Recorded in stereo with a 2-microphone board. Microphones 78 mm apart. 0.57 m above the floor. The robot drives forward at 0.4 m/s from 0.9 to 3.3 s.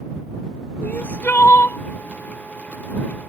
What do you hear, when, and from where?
0.8 s crying: 20° left (ahead or behind); by 1.8 s 25° left (ahead or behind)